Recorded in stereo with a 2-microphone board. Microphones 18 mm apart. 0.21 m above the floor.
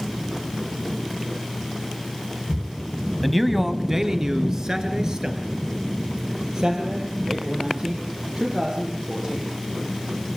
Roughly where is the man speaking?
Centre.